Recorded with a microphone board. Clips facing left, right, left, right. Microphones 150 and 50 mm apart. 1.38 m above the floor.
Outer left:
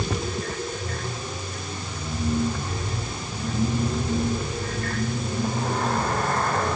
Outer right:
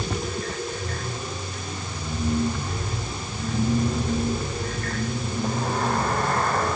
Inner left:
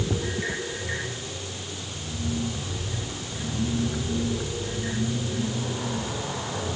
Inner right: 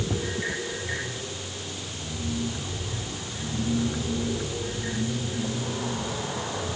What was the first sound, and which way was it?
Only background noise.